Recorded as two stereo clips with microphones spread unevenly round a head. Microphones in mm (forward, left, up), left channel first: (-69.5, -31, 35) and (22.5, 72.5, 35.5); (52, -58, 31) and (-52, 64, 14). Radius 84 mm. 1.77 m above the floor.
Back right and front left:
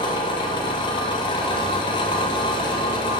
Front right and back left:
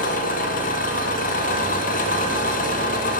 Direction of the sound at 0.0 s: 70° right.